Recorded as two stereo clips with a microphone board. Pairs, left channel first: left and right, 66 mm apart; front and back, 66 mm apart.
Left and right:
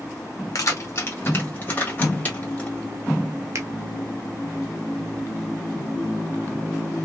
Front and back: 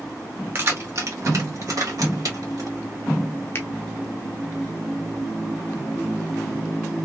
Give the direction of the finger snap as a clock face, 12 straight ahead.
2 o'clock.